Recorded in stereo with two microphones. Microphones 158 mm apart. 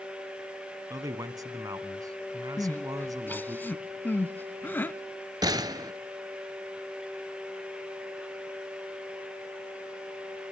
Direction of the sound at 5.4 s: 25° right (ahead or behind).